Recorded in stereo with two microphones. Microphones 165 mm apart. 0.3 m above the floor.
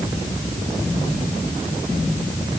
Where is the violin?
I don't hear a violin.